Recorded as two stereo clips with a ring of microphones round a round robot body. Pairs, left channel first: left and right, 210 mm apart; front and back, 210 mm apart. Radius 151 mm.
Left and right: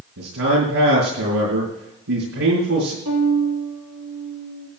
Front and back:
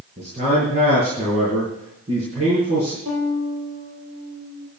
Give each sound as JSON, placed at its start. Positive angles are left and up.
{"t": 0.2, "sound": "a man speaking", "azimuth_deg": -115, "distance_m": 5.0}
{"t": 3.0, "sound": "a violin", "azimuth_deg": -130, "distance_m": 3.5}